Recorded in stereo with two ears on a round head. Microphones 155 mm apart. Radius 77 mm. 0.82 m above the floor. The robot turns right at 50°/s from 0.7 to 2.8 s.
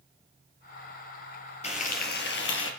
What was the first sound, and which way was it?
Frying, 40° left.